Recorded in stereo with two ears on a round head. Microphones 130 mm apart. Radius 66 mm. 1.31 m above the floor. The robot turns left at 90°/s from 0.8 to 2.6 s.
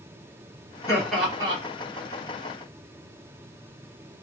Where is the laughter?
20° left, 1.5 m; by 1.6 s 45° right, 1.5 m.